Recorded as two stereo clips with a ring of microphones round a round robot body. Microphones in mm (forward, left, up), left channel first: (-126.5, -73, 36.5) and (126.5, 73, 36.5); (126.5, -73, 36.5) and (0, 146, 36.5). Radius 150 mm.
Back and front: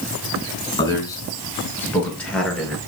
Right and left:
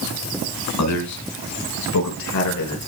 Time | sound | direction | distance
0.8 | a man speaking | 75° right | 4.5 m